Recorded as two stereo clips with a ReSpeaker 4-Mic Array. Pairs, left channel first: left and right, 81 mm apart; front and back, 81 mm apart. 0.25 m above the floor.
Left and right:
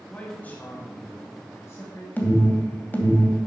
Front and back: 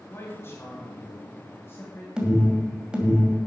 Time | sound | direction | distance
0.1 | a man speaking | 30° left | 1.9 m
2.2 | an alarm | 115° left | 2 m